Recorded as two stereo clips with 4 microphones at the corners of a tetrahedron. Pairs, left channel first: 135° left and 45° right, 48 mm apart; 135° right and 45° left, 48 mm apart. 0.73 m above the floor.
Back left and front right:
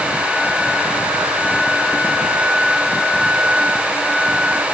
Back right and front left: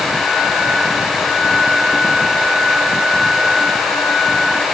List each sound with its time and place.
Only background noise.